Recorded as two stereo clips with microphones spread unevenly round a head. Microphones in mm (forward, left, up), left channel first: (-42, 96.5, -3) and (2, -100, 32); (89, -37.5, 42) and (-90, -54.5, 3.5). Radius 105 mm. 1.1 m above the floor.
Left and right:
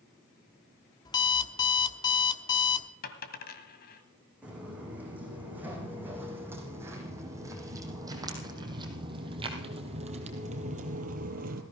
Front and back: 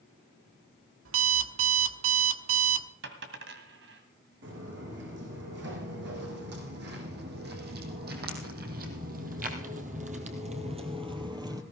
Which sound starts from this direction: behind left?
A dropped coin, at 3.0 s.